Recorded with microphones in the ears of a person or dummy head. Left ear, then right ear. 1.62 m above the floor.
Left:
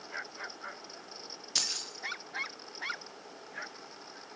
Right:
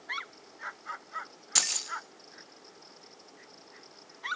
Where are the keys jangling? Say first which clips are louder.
Right 2 dB; 25° right (ahead or behind), 1.1 m.